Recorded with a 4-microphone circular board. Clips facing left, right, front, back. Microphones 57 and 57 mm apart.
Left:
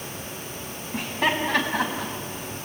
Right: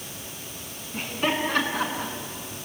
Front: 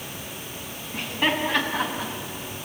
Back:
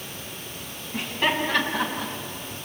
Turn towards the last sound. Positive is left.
turn(degrees=85)